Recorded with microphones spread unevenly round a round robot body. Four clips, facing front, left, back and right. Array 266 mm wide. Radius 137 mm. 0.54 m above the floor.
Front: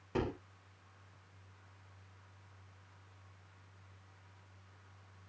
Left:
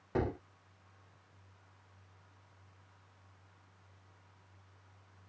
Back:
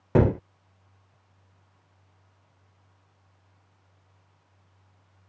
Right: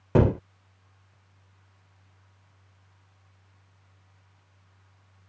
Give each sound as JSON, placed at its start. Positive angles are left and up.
{"t": 0.1, "sound": "a gunshot", "azimuth_deg": -130}